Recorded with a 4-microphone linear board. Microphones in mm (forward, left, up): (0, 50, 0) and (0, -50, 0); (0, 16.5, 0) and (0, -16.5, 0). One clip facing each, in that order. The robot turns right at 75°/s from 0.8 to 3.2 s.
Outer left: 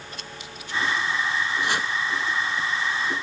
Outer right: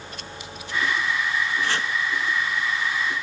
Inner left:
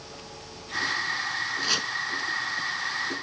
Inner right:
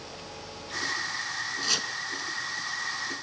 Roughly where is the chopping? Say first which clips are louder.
Even, inner left 1 dB; centre.